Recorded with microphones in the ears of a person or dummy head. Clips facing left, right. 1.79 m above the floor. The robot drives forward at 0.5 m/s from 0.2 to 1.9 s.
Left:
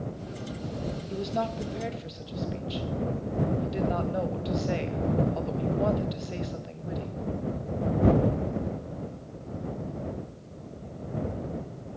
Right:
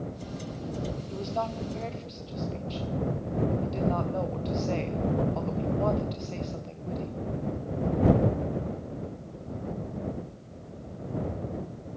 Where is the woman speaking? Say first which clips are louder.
Left 3 dB; 20° left (ahead or behind), 0.7 m; by 7.1 s 15° left (ahead or behind), 1.1 m.